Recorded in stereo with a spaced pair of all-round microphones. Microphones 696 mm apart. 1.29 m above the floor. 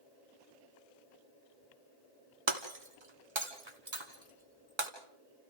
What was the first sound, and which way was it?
Breaking glass, 40° right (ahead or behind).